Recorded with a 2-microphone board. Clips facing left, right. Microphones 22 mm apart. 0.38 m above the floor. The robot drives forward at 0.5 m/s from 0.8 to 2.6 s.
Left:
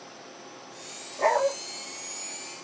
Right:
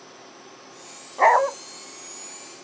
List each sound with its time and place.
1.2 s a dog barking: 75° right (ahead or behind), 0.7 m; by 1.5 s 90° right, 0.6 m